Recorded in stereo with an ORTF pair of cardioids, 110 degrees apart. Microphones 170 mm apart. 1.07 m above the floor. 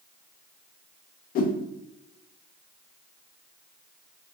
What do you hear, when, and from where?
1.4 s a whoosh: 60° left, 0.8 m